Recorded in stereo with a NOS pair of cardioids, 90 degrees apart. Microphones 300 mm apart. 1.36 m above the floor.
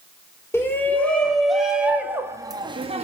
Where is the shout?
10° left, 3 m; by 3.0 s 20° right, 2 m.